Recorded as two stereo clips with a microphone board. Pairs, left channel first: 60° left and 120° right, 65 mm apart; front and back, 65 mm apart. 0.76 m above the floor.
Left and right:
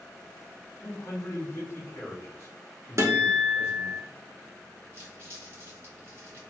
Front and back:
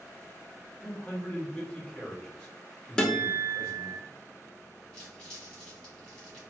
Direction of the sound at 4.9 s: 75° right.